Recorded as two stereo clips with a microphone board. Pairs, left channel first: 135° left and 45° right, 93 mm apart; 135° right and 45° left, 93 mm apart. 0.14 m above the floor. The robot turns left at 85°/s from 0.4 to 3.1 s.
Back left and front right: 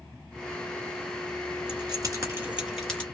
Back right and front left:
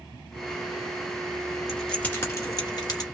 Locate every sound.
1.7 s keys jangling: 40° right, 1.5 m; by 3.0 s 155° right, 1.5 m